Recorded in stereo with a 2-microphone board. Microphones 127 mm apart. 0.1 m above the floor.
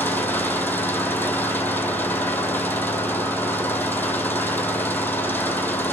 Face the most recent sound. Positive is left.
turn(degrees=15)  # may be behind; listen again after turning